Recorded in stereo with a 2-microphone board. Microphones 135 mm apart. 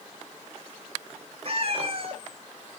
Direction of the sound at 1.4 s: 45° right (ahead or behind).